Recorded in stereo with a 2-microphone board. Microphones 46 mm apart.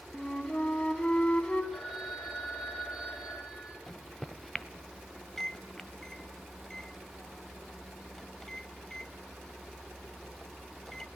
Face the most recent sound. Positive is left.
turn(degrees=10)  # may be behind; listen again after turning